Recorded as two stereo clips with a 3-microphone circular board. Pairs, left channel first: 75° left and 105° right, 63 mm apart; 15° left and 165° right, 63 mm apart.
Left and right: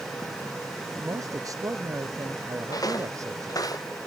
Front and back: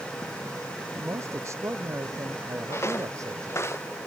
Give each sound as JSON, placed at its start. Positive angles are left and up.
{"t": 1.0, "sound": "a man speaking", "azimuth_deg": -125}
{"t": 2.7, "sound": "footsteps", "azimuth_deg": 60}